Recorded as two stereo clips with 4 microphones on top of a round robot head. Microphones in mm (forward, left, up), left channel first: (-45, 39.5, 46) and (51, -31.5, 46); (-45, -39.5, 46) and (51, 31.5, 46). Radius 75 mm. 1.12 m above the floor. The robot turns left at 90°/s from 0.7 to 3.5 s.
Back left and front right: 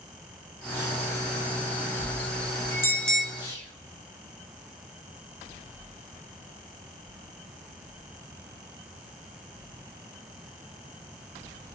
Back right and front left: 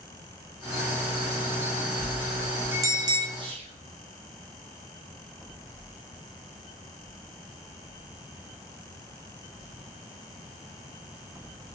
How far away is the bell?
About 0.6 m.